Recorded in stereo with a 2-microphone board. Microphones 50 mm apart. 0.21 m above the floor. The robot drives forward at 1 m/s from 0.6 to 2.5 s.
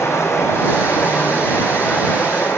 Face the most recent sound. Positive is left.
turn(degrees=45)  # may be behind; listen again after turning